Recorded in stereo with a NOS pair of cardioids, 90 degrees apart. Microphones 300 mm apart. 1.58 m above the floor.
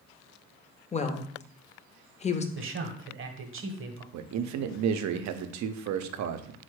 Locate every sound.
0.9 s a woman speaking: 25° left, 0.6 m
2.5 s a man speaking: 45° right, 0.9 m
4.1 s a man speaking: 65° right, 0.5 m